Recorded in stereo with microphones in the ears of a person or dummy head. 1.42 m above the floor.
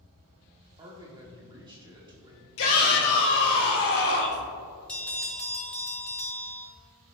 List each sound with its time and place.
0.8 s a man speaking: 25° right (ahead or behind), 1.5 m
2.6 s a shout: 80° left, 1.2 m
4.9 s a bell: 5° left (ahead or behind), 0.9 m